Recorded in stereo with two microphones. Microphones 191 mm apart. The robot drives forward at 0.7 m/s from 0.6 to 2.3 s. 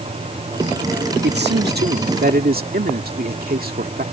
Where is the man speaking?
65° right (ahead or behind); by 4.0 s 50° right (ahead or behind).